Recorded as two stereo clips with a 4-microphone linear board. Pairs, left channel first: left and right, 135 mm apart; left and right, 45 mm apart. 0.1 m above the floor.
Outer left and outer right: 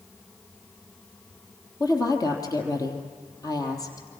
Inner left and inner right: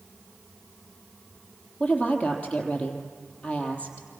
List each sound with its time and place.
1.8 s a woman speaking: 25° left (ahead or behind), 3 m